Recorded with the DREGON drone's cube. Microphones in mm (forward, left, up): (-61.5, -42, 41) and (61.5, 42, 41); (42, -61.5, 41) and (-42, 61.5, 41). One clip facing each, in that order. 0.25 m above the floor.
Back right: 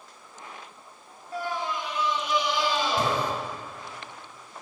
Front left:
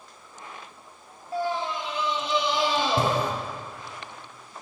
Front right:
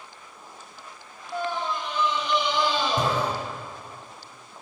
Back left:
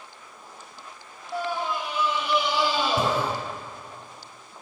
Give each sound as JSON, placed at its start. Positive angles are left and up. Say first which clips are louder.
{"t": 1.3, "sound": "a scream", "louder": "front left 3 dB, even", "azimuth_deg": 50, "distance_m": 1.4}